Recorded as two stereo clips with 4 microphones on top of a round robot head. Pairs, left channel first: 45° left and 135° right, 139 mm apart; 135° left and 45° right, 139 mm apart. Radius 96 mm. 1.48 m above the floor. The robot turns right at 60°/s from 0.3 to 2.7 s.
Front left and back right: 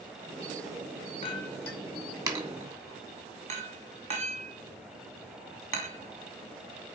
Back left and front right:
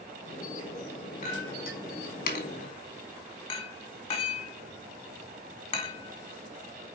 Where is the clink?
95° left, 2.0 m; by 7.0 s 175° right, 2.0 m.